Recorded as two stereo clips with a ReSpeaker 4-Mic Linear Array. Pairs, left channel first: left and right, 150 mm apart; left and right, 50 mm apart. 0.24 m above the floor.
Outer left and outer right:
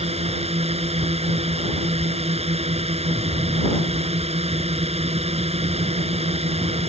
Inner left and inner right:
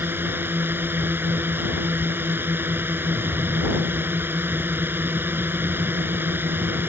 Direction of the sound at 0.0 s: 45° right (ahead or behind).